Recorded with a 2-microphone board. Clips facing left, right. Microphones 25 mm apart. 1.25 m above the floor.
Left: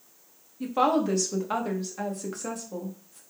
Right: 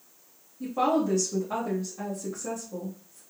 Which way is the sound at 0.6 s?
85° left.